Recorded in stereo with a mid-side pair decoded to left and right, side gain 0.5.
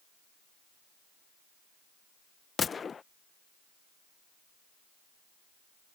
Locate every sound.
2.6 s a gunshot: 35° left